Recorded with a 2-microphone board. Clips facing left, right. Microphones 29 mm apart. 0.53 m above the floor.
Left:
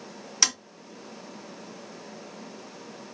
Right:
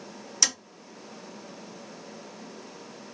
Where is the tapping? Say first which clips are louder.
Left 1 dB; 30° left (ahead or behind), 2 m.